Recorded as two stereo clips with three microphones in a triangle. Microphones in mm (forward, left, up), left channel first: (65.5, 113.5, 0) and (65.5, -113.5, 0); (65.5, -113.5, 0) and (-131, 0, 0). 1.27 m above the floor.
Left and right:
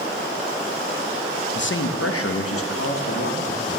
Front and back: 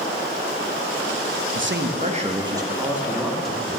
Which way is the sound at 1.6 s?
125° left.